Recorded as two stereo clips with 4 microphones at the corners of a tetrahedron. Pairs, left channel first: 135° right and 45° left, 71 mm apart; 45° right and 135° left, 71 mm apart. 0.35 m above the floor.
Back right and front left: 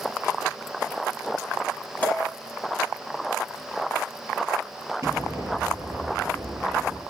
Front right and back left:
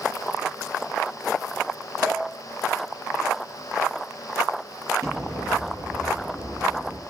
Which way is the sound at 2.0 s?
155° left.